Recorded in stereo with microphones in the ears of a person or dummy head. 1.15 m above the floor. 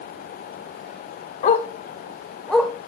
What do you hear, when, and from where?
1.4 s a dog barking: 50° left (ahead or behind), 1.3 m; by 2.7 s centre (ahead or behind), 1.9 m